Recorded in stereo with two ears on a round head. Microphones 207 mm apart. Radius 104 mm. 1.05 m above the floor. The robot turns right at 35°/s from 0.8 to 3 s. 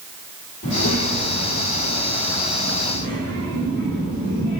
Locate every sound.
0.6 s a child speaking: 60° left, 2.5 m; by 4.6 s 135° left, 2.5 m